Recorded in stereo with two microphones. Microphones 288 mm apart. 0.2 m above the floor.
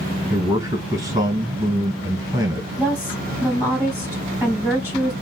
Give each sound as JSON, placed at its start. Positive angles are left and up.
{"t": 0.3, "sound": "a man speaking", "side_deg": -15, "distance_m": 1.6}
{"t": 2.8, "sound": "a woman speaking", "side_deg": -10, "distance_m": 1.1}